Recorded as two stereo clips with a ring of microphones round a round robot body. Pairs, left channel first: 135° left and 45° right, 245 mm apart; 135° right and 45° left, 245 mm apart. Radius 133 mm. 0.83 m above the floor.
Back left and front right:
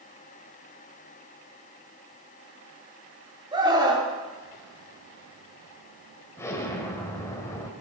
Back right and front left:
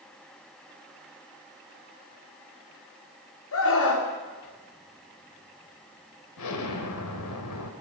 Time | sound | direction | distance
3.5 | a scream | 115° right | 3 m
6.4 | an explosion | 145° right | 1.7 m